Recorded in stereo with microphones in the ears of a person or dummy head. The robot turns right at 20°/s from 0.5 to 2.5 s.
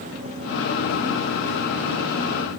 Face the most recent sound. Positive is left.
No sound to turn to.